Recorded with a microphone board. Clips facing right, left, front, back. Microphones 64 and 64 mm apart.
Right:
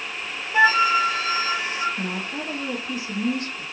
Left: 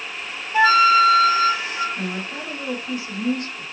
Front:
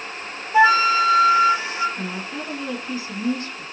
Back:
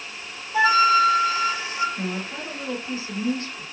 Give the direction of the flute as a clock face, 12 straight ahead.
12 o'clock.